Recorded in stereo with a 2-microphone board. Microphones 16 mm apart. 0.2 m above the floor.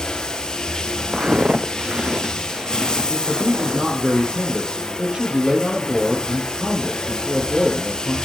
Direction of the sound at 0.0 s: 40° left (ahead or behind).